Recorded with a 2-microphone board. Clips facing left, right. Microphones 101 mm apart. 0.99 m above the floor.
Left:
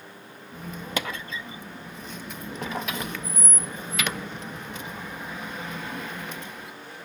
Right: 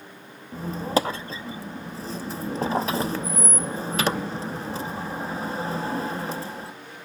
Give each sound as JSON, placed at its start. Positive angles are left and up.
{"t": 0.5, "sound": "a squeak", "side_deg": -30, "distance_m": 0.6}